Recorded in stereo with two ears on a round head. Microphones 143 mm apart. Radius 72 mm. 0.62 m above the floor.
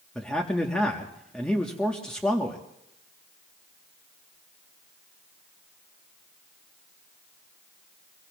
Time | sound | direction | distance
0.1 | a man speaking | 5° left (ahead or behind) | 1.1 m